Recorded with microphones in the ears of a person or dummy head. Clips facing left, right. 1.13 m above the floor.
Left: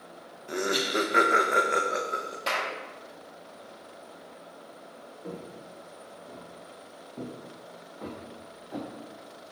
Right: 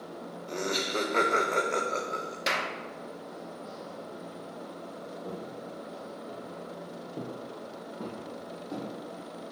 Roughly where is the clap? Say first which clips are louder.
Left 1 dB; right.